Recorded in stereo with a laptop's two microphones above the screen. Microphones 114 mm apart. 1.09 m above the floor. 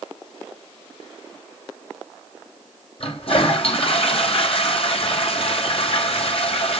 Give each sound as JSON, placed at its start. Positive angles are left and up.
{"t": 3.0, "sound": "a toilet flushing", "side_deg": 55, "distance_m": 4.0}